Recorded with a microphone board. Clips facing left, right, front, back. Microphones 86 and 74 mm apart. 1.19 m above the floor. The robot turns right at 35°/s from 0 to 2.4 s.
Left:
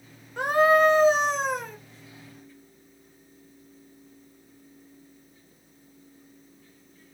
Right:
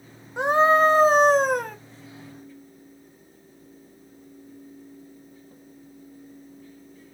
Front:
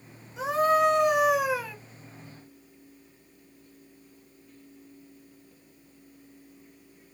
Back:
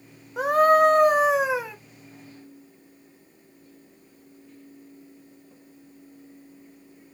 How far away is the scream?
About 1.1 m.